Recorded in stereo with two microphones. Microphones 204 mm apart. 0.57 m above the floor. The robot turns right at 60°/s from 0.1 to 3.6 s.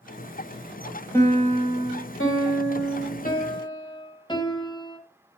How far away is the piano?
About 1.4 m.